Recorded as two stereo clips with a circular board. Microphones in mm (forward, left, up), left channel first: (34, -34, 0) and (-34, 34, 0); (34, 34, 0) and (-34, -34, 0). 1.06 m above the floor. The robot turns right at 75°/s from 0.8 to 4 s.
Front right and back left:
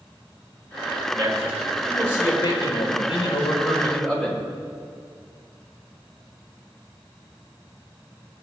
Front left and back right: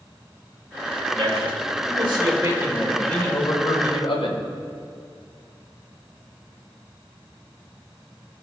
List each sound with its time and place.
1.1 s a man speaking: 170° left, 4.5 m; by 4.4 s 30° left, 4.5 m